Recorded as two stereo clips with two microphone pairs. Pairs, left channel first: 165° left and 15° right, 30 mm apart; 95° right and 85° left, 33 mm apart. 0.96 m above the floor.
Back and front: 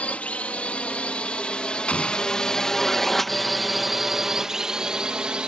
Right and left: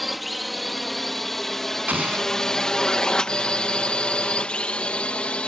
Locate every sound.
0.0 s a drone: straight behind; by 5.5 s 55° right
1.9 s an explosion: 120° left